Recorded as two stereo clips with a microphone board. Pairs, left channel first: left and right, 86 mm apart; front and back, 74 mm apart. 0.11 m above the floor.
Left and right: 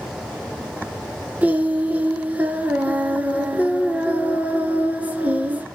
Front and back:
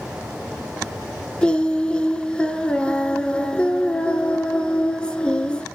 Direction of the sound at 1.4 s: 55° right.